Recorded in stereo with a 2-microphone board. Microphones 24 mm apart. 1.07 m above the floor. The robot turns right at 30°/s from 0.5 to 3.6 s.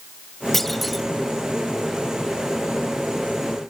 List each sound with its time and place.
0.5 s a clunk: 10° left (ahead or behind); by 1.1 s 5° right (ahead or behind)